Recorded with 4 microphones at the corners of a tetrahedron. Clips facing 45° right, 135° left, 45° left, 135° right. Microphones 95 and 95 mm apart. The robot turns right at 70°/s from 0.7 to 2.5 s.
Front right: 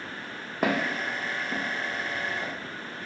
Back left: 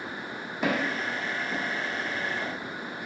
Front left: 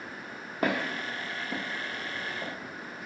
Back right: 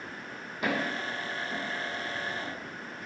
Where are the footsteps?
Straight ahead, 0.9 m; by 2.5 s 60° left, 0.9 m.